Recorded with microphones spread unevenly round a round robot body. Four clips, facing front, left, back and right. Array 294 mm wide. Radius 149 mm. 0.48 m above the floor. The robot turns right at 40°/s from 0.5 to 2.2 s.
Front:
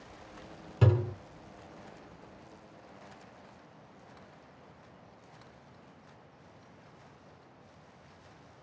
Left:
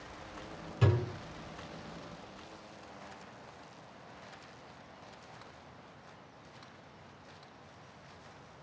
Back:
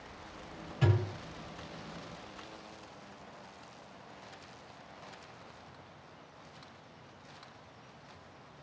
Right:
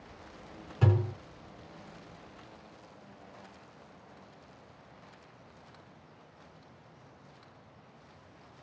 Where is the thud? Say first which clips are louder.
Right 2 dB, front 3 dB; 10° right, 0.7 m; by 1.1 s 5° left, 0.7 m.